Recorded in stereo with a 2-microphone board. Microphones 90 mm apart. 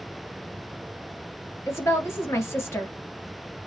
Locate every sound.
1.7 s a woman speaking: 30° left (ahead or behind), 2 m